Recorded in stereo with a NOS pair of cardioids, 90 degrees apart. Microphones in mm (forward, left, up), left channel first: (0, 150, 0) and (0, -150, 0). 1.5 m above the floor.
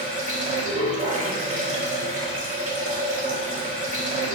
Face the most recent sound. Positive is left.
turn(degrees=-25)